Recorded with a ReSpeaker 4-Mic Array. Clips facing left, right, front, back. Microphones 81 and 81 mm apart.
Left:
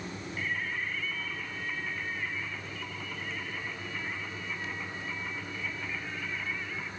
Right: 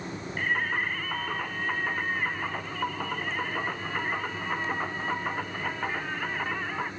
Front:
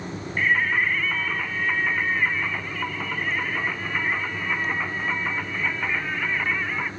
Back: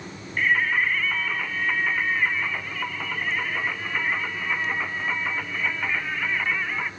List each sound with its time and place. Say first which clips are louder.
0.4 s singing: right 7 dB, even; 85° right, 1.5 m